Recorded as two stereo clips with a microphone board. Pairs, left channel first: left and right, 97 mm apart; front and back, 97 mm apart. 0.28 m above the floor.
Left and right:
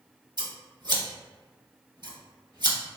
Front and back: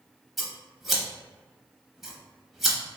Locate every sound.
0.4 s scissors: 95° right, 0.6 m